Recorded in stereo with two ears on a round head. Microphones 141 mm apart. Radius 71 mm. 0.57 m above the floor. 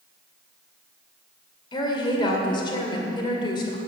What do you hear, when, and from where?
1.7 s a woman speaking: 30° left (ahead or behind), 2 m